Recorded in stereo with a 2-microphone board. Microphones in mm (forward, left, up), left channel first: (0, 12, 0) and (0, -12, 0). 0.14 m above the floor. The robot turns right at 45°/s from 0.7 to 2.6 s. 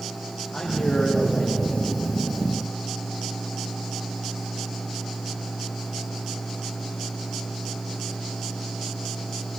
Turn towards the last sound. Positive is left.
turn(degrees=130)